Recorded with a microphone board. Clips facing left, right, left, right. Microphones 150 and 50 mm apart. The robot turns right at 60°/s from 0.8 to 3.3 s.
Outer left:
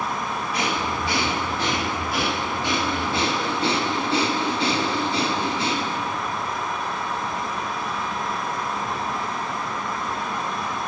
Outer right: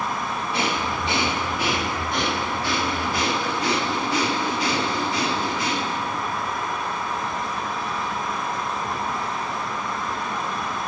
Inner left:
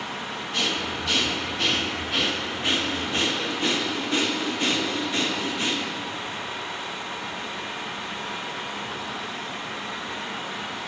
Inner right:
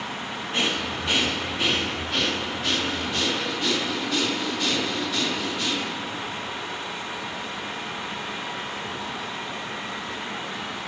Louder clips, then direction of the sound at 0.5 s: Even, inner right 1 dB; 25° right (ahead or behind).